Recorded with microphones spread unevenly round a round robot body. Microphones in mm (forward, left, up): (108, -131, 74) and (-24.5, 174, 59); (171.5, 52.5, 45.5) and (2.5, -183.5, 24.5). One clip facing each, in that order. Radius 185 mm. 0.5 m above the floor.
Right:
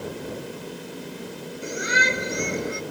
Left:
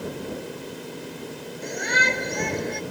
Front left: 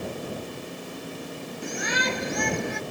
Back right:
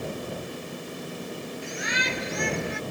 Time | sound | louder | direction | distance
1.6 | a shout | even, front left 7 dB | 15° left | ?